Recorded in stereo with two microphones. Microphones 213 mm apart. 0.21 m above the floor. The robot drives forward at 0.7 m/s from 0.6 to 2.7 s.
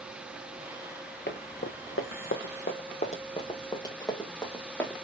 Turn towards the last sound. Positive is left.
turn(degrees=5)  # may be behind; listen again after turning